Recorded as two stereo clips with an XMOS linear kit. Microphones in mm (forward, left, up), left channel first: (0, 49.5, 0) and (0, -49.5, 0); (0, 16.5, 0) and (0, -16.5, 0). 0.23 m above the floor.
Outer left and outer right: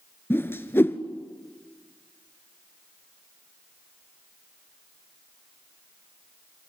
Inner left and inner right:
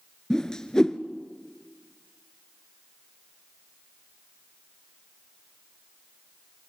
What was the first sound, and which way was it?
A whoosh, 20° left (ahead or behind).